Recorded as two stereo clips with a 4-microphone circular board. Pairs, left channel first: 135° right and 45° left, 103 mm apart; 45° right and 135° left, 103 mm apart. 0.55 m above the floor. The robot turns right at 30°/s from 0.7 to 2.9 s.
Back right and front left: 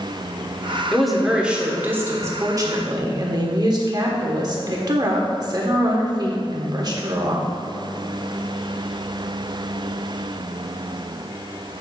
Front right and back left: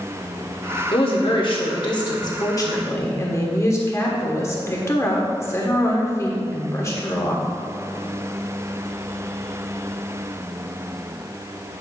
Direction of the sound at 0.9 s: 50° right.